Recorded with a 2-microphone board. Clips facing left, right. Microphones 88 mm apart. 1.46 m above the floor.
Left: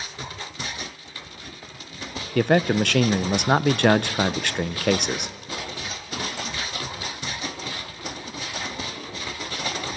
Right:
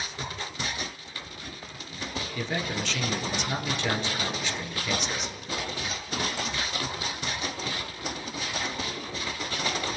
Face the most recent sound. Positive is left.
turn(degrees=60)  # may be behind; listen again after turning